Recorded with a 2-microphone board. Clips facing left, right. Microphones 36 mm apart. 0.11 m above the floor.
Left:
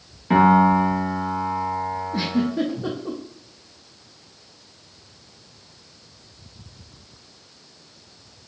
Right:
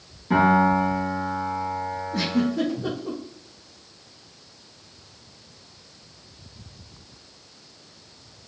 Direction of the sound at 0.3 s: 45° left (ahead or behind).